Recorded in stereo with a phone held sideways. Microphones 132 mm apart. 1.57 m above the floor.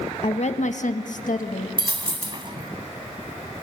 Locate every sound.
0.2 s a woman speaking: 50° left (ahead or behind), 1.2 m; by 1.7 s 75° left (ahead or behind), 2 m
1.8 s a dropped coin: 35° right (ahead or behind), 1.8 m